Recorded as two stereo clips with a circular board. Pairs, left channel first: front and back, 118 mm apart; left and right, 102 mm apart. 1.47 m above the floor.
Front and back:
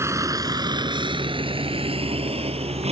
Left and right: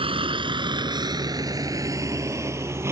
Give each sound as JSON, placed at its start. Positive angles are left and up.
{"t": 0.0, "sound": "a vehicle", "azimuth_deg": -115}